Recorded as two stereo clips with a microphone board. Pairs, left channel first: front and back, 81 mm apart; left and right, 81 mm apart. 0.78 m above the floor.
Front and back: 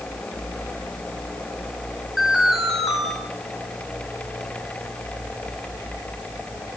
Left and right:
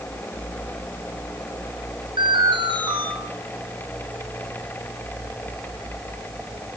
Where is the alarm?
95° right, 7 m.